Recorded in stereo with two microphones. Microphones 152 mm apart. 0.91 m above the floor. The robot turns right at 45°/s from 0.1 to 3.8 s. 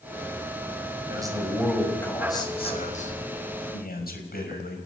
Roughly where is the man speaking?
Ahead right.